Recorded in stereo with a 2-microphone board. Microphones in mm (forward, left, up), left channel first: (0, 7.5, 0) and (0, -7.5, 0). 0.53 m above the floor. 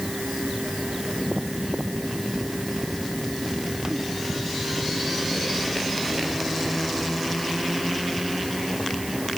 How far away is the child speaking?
No child speaking in this recording.